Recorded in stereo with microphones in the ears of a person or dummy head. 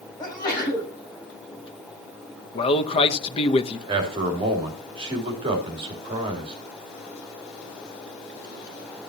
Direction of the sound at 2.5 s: 35° left (ahead or behind).